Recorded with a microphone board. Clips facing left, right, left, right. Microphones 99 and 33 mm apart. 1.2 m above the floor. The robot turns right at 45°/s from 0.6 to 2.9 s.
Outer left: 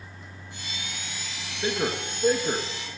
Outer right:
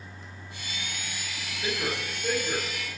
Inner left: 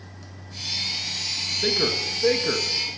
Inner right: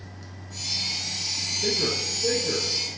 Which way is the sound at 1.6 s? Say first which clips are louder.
Outer left 4 dB, inner left 3 dB; 35° left (ahead or behind).